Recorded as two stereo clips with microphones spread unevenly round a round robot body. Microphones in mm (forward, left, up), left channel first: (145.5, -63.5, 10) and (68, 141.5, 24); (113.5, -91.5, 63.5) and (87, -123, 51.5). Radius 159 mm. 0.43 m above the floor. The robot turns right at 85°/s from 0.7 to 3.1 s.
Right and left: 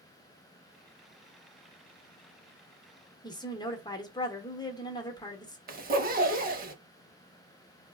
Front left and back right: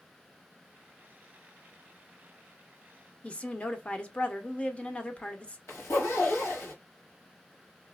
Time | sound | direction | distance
3.2 | a woman speaking | 20° right | 0.8 m
5.7 | a zipper | 55° left | 0.8 m